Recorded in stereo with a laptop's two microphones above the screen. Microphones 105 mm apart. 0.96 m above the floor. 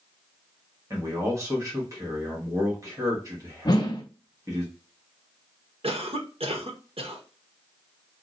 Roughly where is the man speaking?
Right.